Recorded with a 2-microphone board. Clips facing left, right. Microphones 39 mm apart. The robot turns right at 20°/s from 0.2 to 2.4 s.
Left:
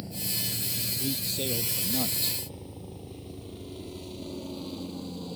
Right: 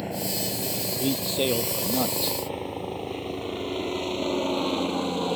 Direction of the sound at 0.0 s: 60° right (ahead or behind).